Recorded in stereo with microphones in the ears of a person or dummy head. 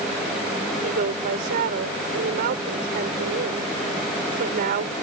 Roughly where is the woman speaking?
Right.